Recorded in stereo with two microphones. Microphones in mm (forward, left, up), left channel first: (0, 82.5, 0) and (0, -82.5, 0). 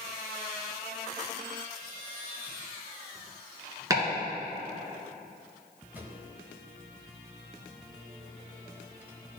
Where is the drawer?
10° right (ahead or behind), 0.8 m.